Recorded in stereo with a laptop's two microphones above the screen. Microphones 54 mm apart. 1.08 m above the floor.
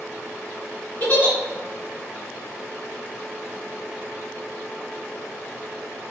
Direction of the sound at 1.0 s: 35° left (ahead or behind).